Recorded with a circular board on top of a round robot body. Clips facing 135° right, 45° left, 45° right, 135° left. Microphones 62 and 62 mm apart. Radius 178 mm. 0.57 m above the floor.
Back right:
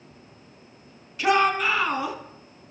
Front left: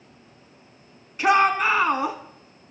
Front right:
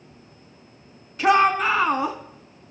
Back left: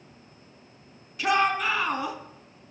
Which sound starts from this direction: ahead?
A shout, at 1.2 s.